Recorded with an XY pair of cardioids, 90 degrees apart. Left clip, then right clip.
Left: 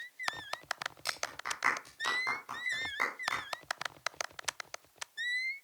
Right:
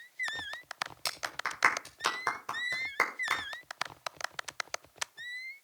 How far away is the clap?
About 5.5 m.